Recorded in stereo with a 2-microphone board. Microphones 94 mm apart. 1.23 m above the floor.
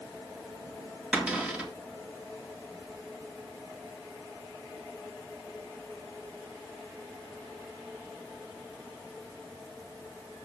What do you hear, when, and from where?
1.1 s a cupboard door: 15° right (ahead or behind), 2.5 m